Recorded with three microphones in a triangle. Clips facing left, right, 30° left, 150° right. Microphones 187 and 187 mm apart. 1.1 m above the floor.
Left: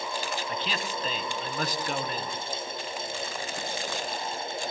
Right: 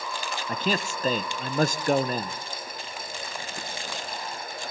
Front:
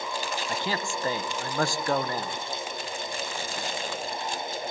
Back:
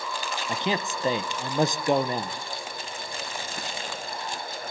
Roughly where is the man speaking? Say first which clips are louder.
Right 5 dB, back 5 dB; right.